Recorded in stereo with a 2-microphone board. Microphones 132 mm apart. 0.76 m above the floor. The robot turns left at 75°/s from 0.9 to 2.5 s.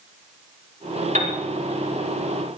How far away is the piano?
About 4.5 m.